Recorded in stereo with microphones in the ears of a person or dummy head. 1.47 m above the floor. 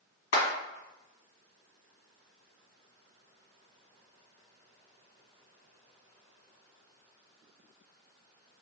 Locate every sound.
0.3 s a clap: 55° left (ahead or behind), 1.9 m